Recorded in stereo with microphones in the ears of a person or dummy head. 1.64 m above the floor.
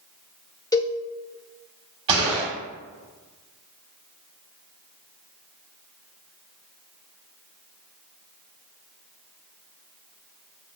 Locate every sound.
0.7 s a cowbell: 20° left (ahead or behind), 0.7 m
2.1 s a gunshot: 30° right (ahead or behind), 3 m